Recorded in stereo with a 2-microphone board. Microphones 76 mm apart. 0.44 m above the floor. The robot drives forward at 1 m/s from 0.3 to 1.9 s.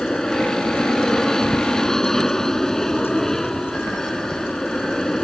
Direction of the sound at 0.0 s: 5° left (ahead or behind).